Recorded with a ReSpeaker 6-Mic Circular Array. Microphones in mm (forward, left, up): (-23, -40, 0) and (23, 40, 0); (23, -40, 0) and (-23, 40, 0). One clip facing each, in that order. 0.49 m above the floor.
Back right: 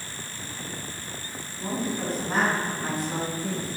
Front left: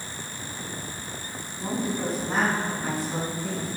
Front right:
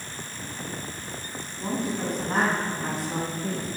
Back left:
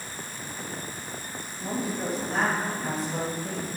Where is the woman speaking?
20° right, 4.5 m; by 3.7 s 55° right, 5.5 m.